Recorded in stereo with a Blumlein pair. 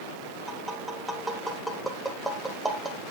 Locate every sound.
0.5 s tapping: 5° right, 1.4 m